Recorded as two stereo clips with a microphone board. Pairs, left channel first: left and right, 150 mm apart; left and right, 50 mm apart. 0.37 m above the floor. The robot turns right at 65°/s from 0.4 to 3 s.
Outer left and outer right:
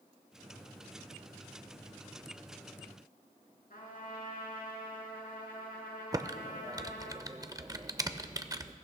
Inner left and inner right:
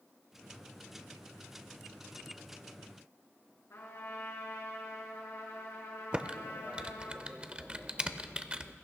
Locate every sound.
3.7 s a trumpet: 75° left (ahead or behind), 3.5 m
6.1 s typing on a keyboard: 25° right (ahead or behind), 0.6 m